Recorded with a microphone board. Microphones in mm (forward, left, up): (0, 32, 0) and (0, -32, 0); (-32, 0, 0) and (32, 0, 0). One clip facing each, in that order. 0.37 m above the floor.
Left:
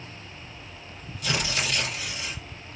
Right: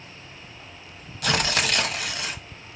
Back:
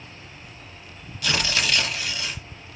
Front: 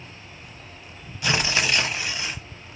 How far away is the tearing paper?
About 0.7 m.